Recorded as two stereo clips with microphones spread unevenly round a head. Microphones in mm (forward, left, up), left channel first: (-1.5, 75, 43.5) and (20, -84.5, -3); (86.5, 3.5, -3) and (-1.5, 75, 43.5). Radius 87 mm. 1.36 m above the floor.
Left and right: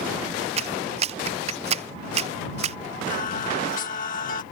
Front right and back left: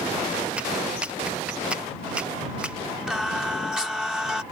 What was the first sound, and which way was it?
A clap, 130° right.